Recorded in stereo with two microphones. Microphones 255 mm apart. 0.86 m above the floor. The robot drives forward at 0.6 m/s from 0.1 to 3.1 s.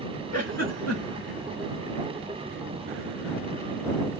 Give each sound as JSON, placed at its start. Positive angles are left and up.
{"t": 0.3, "sound": "a giggle", "side_deg": 80, "distance_m": 2.0}